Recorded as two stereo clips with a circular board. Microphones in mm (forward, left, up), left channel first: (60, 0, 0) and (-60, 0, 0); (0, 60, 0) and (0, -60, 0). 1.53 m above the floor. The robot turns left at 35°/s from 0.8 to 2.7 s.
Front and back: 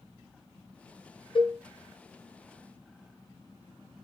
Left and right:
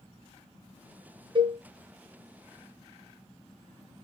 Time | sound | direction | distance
1.4 | a cowbell | 45° right | 0.6 m